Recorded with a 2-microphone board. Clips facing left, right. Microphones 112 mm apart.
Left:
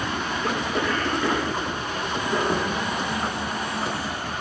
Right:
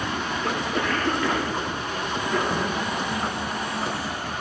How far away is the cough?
About 3 m.